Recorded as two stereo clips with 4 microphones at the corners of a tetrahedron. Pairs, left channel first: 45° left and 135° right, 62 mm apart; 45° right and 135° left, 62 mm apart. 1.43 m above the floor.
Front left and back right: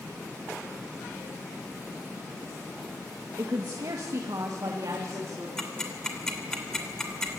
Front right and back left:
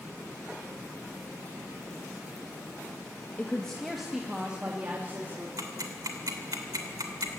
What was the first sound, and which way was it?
A woman speaking, 110° right.